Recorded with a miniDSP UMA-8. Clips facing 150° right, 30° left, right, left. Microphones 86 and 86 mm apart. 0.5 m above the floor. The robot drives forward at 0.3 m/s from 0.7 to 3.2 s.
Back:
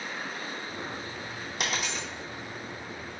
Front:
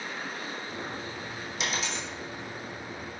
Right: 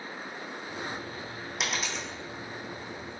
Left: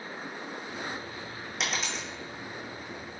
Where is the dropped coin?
175° right, 1.0 m.